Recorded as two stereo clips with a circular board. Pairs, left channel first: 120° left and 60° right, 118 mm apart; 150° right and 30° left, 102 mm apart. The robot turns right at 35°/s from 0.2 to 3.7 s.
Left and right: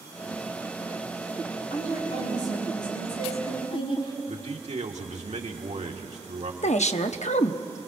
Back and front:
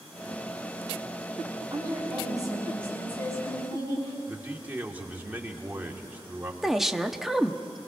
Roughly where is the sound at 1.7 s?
Left.